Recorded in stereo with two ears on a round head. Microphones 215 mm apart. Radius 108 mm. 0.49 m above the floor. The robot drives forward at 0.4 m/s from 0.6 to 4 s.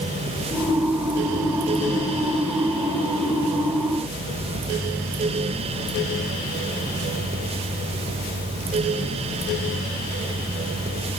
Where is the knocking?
No knocking in this recording.